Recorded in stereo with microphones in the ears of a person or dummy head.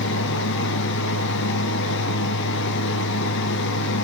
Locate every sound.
0.0 s a fan: 65° left (ahead or behind), 1.0 m